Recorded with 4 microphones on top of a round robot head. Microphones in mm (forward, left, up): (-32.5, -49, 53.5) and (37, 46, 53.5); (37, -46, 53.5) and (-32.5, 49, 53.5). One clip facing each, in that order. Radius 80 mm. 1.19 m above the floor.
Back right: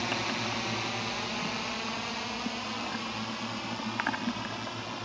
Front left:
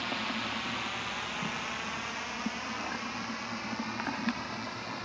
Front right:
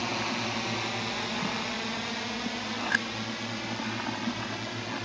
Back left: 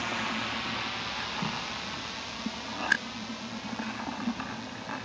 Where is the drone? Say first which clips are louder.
Back right 3 dB, front right 2 dB; 100° right; by 5.1 s 50° right.